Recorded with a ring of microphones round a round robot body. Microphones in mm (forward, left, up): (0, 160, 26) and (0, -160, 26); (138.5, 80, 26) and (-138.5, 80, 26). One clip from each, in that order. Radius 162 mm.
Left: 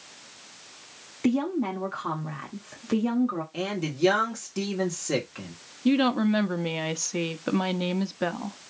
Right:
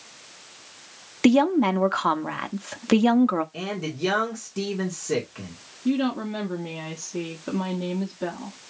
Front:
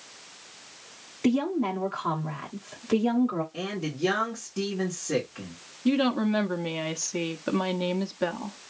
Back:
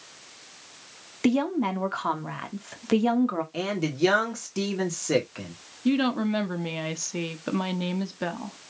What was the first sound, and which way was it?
A woman speaking, 120° right.